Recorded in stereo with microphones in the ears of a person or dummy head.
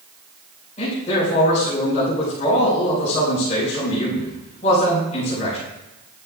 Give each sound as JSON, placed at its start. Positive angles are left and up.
{"t": 0.8, "sound": "a man speaking", "side_deg": 35, "distance_m": 6.0}